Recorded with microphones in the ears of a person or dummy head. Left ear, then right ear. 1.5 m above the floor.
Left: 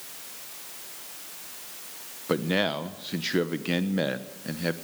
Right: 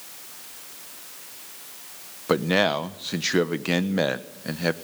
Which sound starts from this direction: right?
A man speaking, at 2.3 s.